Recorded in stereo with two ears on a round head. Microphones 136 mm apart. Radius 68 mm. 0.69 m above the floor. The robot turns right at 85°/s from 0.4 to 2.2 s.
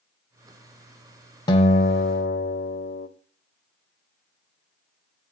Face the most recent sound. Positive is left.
turn(degrees=90)